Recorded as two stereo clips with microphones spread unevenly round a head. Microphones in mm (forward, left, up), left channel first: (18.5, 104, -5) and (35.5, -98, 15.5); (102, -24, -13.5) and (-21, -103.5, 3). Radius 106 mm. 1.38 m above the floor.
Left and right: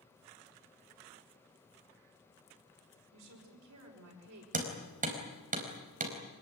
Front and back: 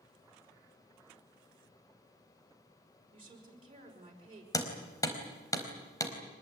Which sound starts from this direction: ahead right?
Hammering, at 4.5 s.